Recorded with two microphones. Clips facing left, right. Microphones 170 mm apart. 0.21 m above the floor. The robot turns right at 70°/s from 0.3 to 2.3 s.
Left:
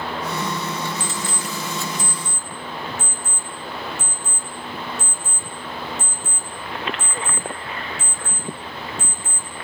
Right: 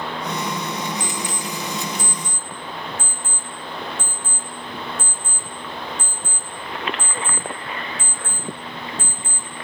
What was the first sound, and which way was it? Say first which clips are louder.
An alarm clock: right 1 dB; 10° right (ahead or behind).